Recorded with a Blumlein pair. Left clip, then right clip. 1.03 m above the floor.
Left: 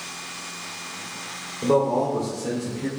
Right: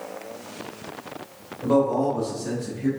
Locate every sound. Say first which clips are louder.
1.6 s a man speaking: even; 40° left, 2.5 m; by 2.9 s 25° left, 2 m